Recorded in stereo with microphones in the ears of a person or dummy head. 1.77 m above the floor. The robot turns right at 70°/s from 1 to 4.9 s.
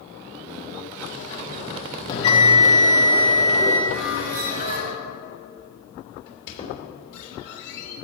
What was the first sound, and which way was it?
A bell, 35° left.